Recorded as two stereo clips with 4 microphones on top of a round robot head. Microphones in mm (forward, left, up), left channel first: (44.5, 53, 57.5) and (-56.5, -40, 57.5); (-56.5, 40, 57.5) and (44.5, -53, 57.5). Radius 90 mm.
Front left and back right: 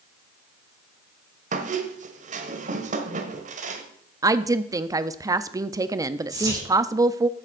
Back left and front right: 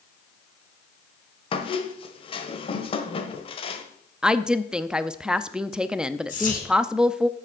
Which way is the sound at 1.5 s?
170° right.